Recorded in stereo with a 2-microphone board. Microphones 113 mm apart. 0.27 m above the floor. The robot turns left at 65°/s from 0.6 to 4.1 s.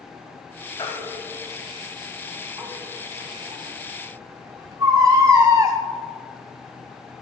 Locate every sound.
0.8 s a baby crying: 50° left (ahead or behind), 1.4 m; by 5.8 s 30° right (ahead or behind), 1.4 m